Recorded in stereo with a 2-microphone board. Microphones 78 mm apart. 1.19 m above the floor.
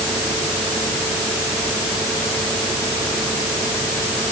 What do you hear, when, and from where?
Only background noise.